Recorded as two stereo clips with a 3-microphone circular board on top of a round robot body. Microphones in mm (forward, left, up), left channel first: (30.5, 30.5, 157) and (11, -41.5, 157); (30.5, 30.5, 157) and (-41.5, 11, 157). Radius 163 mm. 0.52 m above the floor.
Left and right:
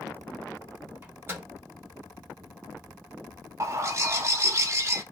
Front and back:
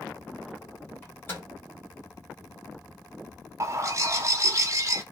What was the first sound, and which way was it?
A microwave, 45° right.